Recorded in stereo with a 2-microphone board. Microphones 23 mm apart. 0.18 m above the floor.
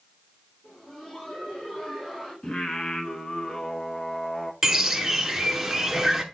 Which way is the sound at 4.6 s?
10° right (ahead or behind).